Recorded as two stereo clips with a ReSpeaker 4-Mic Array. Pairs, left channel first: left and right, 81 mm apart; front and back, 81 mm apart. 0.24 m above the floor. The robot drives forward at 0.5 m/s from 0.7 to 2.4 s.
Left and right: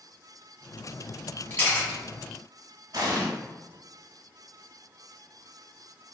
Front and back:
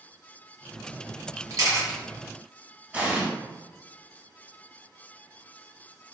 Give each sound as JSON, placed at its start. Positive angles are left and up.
{"t": 1.5, "sound": "a camera shutter", "azimuth_deg": 150, "distance_m": 1.0}
{"t": 2.9, "sound": "an explosion", "azimuth_deg": -110, "distance_m": 0.6}